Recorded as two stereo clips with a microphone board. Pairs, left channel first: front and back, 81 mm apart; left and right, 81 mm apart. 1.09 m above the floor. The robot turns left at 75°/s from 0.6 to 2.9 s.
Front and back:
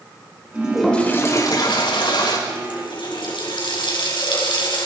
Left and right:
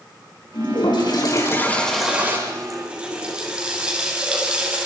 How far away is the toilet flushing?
About 5.5 m.